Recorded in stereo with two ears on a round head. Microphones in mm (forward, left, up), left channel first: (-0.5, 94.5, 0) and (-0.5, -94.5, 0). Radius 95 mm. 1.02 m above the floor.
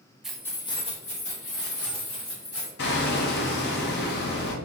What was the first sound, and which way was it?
Keys jangling, 5° right (ahead or behind).